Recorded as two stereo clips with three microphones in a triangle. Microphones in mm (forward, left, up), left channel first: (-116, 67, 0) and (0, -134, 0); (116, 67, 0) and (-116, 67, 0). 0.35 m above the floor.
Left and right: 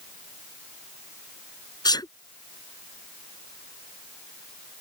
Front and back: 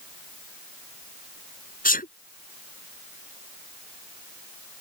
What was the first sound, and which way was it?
A sneeze, 50° left.